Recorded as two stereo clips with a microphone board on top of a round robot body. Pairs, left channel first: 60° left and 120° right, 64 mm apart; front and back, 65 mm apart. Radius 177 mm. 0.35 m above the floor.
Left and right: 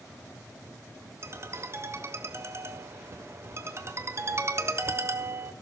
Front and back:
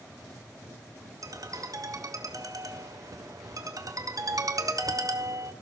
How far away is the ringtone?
About 1.6 m.